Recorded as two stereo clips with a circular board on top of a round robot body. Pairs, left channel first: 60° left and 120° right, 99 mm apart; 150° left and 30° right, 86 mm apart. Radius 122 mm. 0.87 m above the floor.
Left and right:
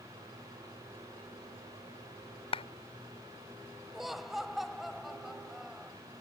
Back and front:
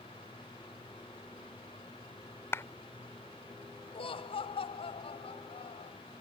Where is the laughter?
150° left.